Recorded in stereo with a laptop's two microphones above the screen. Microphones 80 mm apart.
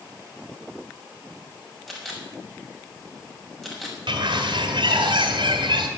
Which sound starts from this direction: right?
A bird, at 4.1 s.